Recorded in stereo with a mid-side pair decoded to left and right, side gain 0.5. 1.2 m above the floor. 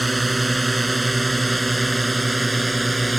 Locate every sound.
0.0 s a drone: 15° right